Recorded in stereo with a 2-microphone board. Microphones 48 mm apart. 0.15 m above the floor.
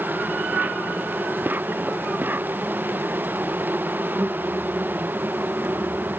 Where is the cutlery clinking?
No cutlery clinking in this recording.